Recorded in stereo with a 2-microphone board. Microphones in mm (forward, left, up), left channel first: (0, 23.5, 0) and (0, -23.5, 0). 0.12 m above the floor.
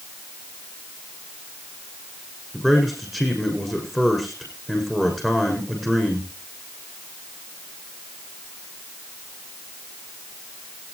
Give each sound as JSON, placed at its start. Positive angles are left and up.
{"t": 2.5, "sound": "a man speaking", "side_deg": 10, "distance_m": 6.5}